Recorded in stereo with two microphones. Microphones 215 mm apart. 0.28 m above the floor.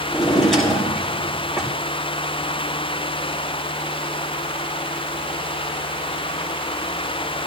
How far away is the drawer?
About 5.5 m.